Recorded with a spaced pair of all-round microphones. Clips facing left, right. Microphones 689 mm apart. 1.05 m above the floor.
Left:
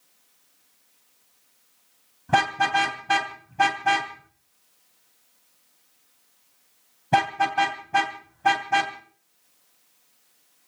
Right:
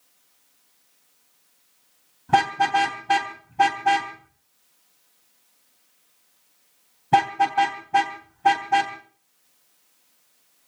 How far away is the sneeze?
I don't hear a sneeze.